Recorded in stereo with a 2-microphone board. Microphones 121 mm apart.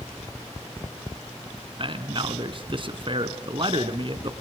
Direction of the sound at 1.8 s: 45° right (ahead or behind).